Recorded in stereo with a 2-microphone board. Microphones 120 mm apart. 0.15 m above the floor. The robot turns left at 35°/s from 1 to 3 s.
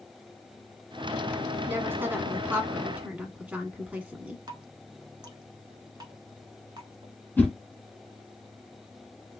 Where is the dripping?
40° right (ahead or behind), 0.8 m.